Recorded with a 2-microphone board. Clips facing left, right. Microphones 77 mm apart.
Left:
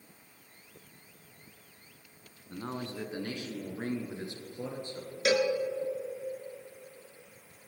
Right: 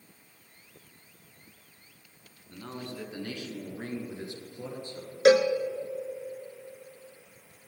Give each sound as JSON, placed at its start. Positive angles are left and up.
{"t": 2.5, "sound": "a man speaking", "side_deg": 25, "distance_m": 1.7}
{"t": 5.2, "sound": "a cowbell", "side_deg": -45, "distance_m": 0.9}